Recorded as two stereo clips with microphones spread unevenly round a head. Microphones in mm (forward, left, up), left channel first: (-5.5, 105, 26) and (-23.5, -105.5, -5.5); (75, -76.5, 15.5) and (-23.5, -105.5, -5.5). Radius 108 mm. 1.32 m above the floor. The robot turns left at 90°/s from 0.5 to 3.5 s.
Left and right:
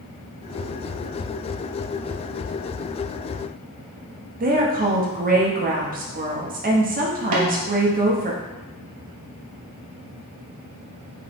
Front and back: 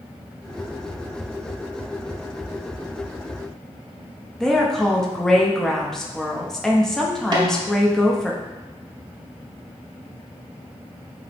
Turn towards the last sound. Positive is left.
turn(degrees=-110)